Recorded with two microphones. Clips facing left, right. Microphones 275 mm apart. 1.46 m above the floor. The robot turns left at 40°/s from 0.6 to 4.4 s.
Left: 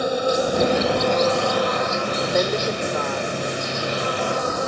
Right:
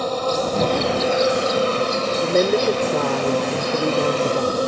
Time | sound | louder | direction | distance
0.0 | an insect | left 1 dB | 10° left | ?
2.2 | a woman speaking | right 6 dB | 25° right | ?